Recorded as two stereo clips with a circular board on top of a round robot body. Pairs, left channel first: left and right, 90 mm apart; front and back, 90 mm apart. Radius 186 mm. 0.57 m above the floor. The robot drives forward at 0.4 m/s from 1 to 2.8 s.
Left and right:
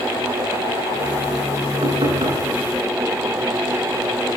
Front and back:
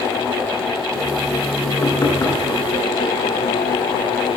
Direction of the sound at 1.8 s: 60° right.